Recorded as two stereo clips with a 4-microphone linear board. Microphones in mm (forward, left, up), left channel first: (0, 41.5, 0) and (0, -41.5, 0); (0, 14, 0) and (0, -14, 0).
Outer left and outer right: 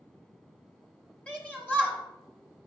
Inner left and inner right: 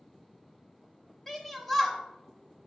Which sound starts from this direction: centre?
A shout, at 1.3 s.